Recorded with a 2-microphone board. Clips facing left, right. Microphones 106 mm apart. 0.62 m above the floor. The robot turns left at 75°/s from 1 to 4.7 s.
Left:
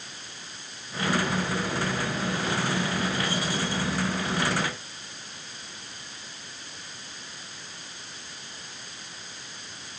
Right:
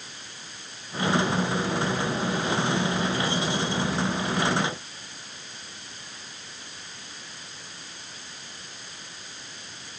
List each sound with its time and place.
Only background noise.